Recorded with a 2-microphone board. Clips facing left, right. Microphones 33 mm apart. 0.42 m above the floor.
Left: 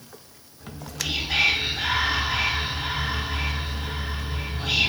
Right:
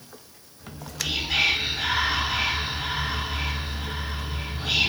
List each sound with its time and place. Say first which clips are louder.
0.6 s whispering: even; 5° left (ahead or behind), 0.8 m